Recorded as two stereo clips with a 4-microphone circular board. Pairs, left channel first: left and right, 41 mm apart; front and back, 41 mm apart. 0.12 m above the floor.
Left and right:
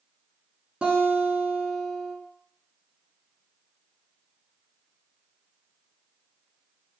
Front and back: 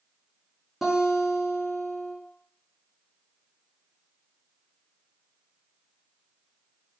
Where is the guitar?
100° right, 1.1 m.